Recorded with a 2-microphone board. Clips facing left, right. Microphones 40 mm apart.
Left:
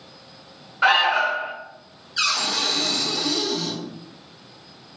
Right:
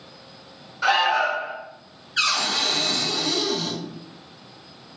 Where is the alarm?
30° left (ahead or behind), 0.6 m.